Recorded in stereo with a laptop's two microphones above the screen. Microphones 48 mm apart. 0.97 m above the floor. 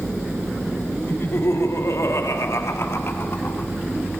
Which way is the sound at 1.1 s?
50° left (ahead or behind).